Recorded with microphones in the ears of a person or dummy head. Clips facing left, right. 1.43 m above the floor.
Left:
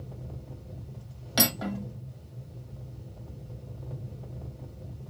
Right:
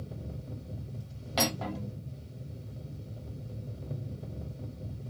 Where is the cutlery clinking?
20° left (ahead or behind), 0.9 m.